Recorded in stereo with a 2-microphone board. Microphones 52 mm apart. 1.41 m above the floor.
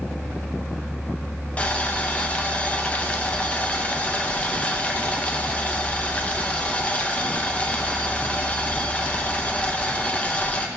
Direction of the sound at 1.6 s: 25° left (ahead or behind).